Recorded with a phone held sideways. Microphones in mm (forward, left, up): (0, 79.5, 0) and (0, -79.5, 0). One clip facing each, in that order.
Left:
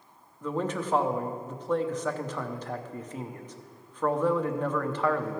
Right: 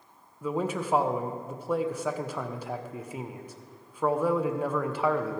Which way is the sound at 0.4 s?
10° right (ahead or behind).